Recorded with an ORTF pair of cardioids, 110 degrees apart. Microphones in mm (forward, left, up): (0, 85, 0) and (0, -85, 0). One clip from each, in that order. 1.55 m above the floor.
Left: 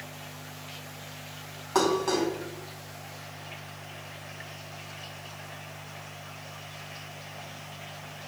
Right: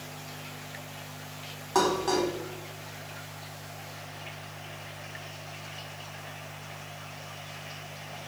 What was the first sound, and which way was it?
Dishes clattering, 5° left.